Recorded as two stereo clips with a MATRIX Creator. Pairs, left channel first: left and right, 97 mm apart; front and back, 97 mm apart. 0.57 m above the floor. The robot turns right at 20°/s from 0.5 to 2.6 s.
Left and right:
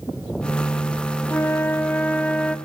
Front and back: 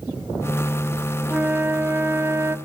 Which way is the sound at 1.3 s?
125° left.